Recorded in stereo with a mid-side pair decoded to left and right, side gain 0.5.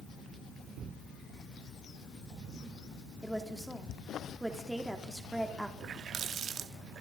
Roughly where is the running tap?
Ahead right.